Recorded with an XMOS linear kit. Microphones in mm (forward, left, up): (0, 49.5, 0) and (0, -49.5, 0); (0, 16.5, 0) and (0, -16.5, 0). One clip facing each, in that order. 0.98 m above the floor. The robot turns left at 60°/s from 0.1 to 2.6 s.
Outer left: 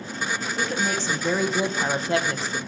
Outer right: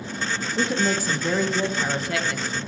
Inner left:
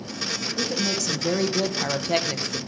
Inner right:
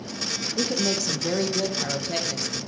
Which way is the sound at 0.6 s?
140° right.